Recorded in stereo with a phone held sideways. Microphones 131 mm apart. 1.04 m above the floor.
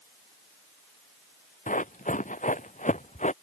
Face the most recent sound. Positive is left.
turn(degrees=70)  # may be behind; listen again after turning